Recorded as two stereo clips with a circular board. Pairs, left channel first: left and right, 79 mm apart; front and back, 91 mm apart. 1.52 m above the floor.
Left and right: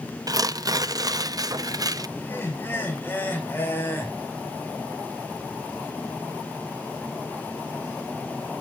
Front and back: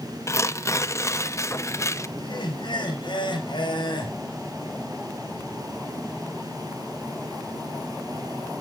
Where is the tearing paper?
55° right, 0.6 m.